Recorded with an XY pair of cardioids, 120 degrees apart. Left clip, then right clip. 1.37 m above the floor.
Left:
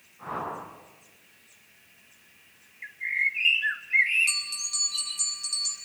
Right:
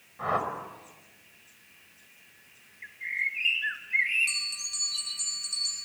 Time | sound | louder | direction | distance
0.2 | a whoosh | right 5 dB | 65° right | 5.5 m
2.8 | a bird | left 4 dB | 20° left | 2 m
4.3 | a bell | left 2 dB | 25° left | 7.5 m